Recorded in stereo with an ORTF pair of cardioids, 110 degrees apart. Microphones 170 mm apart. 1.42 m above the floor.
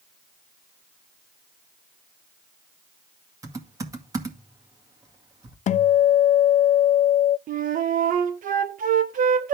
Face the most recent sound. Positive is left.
turn(degrees=-55)